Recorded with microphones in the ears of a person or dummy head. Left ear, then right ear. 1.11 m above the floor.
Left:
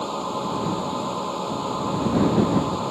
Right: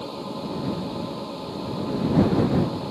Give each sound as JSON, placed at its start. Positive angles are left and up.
{"t": 0.0, "sound": "a machine running", "side_deg": 45}